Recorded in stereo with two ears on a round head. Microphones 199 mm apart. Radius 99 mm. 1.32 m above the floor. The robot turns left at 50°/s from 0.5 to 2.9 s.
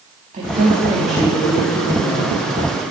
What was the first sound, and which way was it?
A woman speaking, 150° right.